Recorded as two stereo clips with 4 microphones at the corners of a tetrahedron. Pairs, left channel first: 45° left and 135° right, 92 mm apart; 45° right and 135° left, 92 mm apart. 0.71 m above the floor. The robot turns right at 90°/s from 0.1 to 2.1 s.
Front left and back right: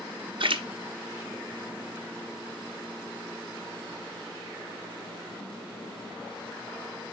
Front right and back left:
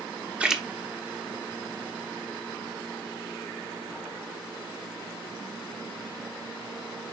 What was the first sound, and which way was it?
A splash, 150° right.